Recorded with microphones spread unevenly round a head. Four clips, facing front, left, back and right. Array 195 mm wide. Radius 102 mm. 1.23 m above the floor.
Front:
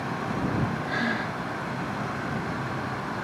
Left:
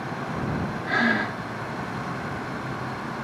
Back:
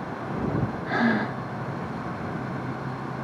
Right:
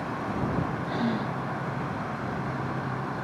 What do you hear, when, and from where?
0.9 s breathing: 170° left